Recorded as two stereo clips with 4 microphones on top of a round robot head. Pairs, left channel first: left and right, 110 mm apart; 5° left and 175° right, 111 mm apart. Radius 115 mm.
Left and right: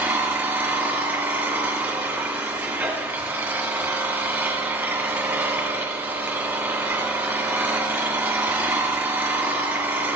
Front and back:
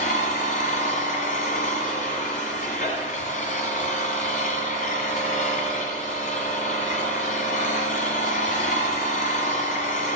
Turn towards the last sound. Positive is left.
turn(degrees=-15)